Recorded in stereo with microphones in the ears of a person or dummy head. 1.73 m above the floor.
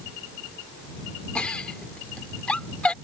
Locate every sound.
1.4 s a giggle: 5° left (ahead or behind)